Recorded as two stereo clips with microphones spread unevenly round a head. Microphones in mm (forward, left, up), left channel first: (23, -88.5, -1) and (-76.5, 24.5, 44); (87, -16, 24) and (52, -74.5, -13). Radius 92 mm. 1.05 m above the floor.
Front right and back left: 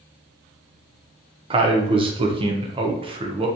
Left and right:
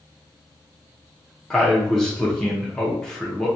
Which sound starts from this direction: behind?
A man speaking, at 1.5 s.